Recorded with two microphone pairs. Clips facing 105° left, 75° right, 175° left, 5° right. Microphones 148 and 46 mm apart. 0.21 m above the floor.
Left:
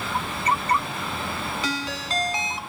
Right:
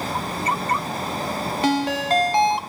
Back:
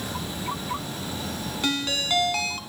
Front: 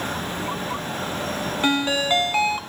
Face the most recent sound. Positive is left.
turn(degrees=-60)